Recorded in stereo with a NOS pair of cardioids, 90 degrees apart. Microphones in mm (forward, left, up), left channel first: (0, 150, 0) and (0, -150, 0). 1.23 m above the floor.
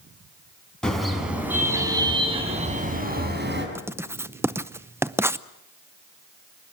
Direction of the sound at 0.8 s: Straight ahead.